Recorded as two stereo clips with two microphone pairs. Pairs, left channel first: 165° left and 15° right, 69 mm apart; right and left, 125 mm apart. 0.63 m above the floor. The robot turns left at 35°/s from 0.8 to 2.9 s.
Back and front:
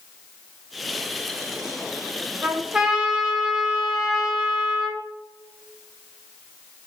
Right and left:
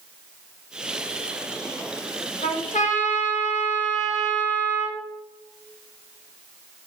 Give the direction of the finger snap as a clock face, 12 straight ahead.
No finger snap in this recording.